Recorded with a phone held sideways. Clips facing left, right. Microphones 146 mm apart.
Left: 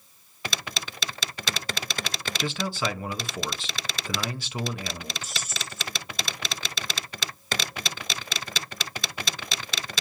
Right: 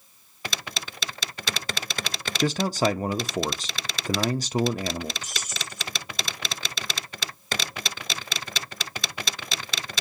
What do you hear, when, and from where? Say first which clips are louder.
2.4 s a man speaking: right 7 dB; 40° right (ahead or behind), 0.5 m
5.2 s keys jangling: even; 15° right (ahead or behind), 2.5 m